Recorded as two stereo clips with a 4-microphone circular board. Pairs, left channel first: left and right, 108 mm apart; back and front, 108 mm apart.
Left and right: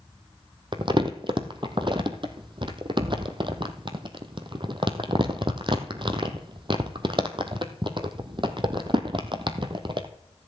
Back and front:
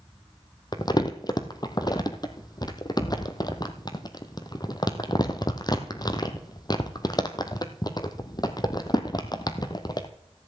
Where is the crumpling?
130° right, 1.1 m.